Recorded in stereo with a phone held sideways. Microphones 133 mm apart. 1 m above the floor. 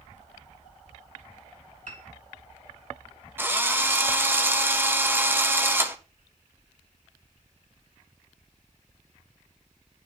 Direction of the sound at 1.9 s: 65° right (ahead or behind).